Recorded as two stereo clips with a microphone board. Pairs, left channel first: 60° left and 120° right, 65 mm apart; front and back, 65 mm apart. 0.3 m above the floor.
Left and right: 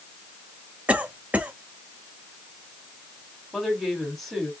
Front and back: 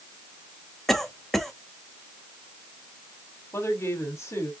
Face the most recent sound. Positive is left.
turn(degrees=-25)